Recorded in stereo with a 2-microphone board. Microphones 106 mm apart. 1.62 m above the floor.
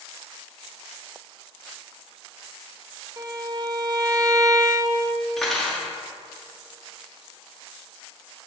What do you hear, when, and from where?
3.2 s a violin: 35° right (ahead or behind), 0.5 m
5.4 s cutlery clinking: 5° left (ahead or behind), 1.0 m